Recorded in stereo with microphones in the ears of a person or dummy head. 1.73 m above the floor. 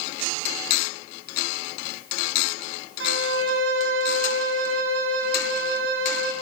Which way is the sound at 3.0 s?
65° right (ahead or behind).